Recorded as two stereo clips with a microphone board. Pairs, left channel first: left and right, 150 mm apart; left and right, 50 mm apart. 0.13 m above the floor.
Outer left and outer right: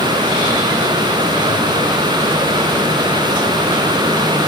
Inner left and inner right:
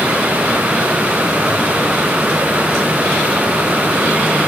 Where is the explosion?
I don't hear an explosion.